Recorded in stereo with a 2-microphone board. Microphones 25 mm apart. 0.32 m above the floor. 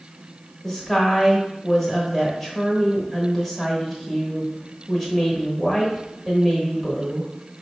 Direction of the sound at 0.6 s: 10° left (ahead or behind).